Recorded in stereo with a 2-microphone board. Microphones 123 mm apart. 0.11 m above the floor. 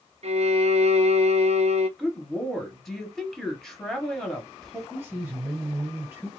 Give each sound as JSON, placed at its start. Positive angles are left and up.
{"t": 0.2, "sound": "a violin", "side_deg": -55, "distance_m": 0.6}
{"t": 2.0, "sound": "a woman speaking", "side_deg": 0, "distance_m": 1.8}
{"t": 4.9, "sound": "a man speaking", "side_deg": -20, "distance_m": 2.5}